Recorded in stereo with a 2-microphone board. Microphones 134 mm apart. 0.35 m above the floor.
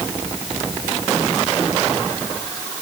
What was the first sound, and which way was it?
Only background noise.